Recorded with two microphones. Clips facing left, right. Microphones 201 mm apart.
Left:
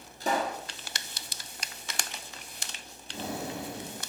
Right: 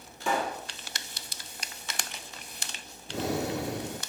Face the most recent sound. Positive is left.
turn(degrees=-80)